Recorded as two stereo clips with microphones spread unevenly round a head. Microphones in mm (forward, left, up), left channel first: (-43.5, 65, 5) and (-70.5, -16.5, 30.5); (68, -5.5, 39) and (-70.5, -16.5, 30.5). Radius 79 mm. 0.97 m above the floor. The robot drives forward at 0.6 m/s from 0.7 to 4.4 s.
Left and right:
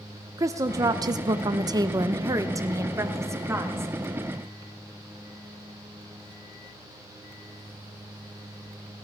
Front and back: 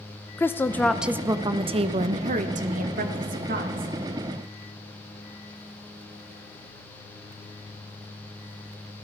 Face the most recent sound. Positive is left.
turn(degrees=-175)